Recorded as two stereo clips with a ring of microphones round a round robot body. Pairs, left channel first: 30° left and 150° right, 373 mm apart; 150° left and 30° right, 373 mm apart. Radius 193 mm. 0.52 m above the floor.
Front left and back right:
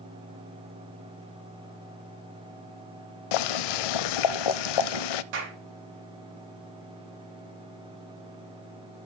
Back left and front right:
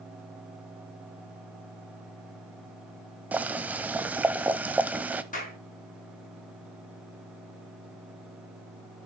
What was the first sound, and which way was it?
Boiling, 55° left.